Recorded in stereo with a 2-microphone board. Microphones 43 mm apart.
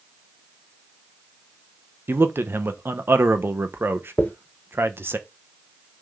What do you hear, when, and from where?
2.1 s a man speaking: 55° right (ahead or behind), 1.2 m
4.2 s a dropped coin: 40° left (ahead or behind), 1.0 m